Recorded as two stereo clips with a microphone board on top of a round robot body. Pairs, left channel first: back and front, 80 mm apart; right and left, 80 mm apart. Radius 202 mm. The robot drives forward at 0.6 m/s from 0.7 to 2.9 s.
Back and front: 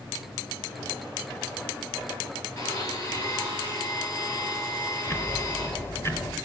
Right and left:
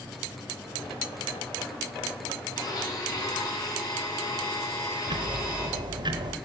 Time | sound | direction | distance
2.6 | a blender | 130° right | 5.5 m
5.1 | ticking | 120° left | 0.9 m